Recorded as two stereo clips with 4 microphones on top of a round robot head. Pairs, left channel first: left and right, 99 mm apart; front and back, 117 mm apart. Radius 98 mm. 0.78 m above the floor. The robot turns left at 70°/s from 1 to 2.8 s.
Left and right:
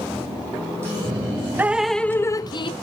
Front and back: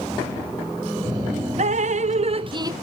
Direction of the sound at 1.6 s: 160° right.